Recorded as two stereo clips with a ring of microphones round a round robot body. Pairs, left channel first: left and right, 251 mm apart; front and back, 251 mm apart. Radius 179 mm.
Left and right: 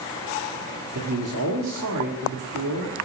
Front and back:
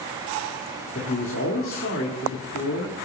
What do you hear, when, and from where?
0.9 s a man speaking: 55° right, 1.6 m